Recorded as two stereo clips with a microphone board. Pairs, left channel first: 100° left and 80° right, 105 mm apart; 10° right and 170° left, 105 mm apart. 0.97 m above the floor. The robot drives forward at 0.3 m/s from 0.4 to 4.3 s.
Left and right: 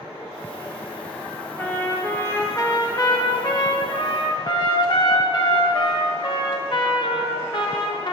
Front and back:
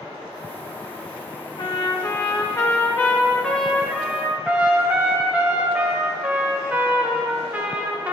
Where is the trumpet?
30° left, 1.0 m; by 8.1 s 95° left, 0.6 m.